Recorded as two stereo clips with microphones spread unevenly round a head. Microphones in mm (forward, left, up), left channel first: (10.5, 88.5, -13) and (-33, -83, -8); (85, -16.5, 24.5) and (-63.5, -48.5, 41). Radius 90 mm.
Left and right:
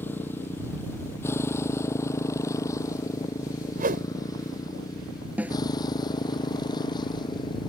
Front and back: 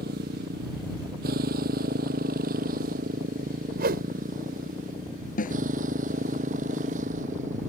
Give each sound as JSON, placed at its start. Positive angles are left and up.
{"t": 0.0, "sound": "a motorcycle", "azimuth_deg": 155}
{"t": 3.8, "sound": "a whoosh", "azimuth_deg": -145}
{"t": 5.4, "sound": "a snare drum", "azimuth_deg": -20}